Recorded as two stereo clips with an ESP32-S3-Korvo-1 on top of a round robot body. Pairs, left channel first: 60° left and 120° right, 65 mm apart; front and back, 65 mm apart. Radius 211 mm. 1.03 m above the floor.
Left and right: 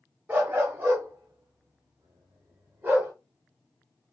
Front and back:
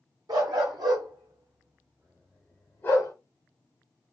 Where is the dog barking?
170° left, 1.5 m; by 3.1 s 45° right, 0.9 m.